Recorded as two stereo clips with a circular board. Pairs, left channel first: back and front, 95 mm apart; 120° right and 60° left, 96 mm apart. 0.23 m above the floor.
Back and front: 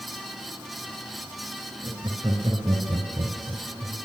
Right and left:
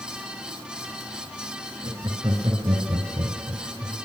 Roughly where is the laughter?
Ahead left.